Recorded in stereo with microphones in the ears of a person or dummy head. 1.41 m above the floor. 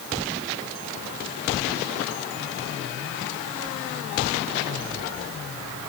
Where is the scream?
No scream in this recording.